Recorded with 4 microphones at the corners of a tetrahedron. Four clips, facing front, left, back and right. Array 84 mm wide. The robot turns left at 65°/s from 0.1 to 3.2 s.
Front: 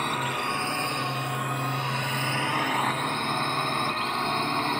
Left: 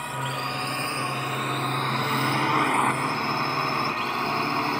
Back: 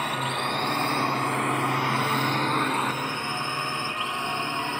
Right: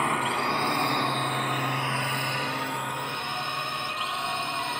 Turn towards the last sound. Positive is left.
turn(degrees=65)